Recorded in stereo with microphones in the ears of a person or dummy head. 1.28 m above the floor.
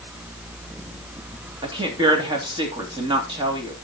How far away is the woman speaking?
About 2.5 m.